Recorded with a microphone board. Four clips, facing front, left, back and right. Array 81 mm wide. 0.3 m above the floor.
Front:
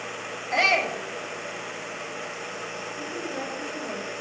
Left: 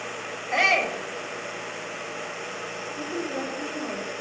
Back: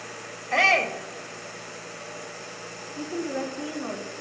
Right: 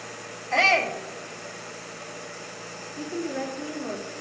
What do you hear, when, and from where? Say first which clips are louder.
0.5 s a shout: right 1 dB, back 1 dB; 160° left, 1.3 m
3.0 s a woman speaking: right 1 dB, back 5 dB; 160° left, 3.5 m